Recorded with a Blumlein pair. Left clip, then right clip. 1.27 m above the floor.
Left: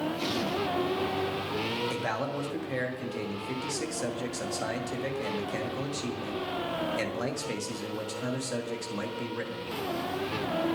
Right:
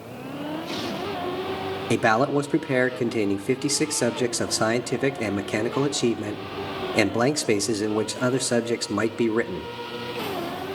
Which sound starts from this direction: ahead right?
A man speaking, at 1.9 s.